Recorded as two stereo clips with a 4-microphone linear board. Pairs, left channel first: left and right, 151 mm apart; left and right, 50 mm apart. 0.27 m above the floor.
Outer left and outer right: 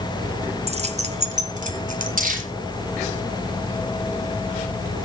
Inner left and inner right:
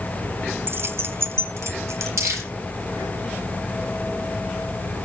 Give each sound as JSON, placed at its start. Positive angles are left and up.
{"t": 0.7, "sound": "keys jangling", "side_deg": -45, "distance_m": 1.5}
{"t": 2.2, "sound": "crumpling", "side_deg": -70, "distance_m": 10.0}